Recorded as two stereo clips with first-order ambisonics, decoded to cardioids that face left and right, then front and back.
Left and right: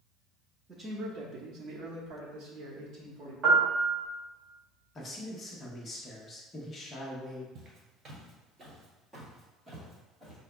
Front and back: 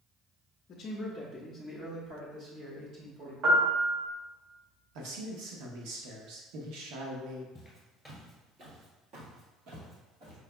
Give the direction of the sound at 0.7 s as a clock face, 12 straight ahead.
1 o'clock.